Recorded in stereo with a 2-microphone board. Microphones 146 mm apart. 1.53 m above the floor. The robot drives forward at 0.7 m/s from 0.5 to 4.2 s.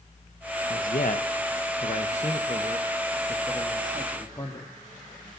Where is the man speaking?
65° left (ahead or behind), 1.2 m; by 4.7 s 25° left (ahead or behind), 2.5 m.